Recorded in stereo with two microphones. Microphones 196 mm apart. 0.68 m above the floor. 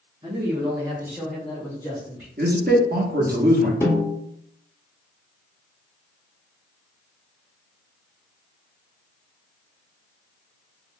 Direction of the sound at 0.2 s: 30° right (ahead or behind).